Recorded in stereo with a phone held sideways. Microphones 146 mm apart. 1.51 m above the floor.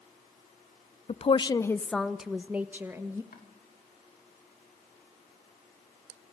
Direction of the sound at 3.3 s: 85° left.